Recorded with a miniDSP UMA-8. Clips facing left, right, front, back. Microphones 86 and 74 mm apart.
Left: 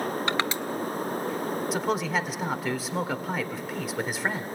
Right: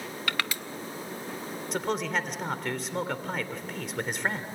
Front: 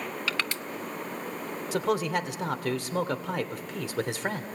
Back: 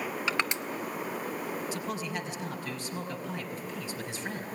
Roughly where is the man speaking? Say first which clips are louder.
Even, front 8 dB; ahead.